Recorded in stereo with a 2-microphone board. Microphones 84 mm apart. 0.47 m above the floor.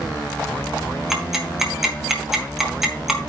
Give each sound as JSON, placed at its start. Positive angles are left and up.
{"t": 1.1, "sound": "ticking", "side_deg": -5, "distance_m": 2.0}